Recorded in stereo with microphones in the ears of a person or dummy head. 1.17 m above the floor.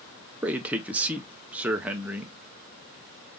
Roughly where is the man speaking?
Centre.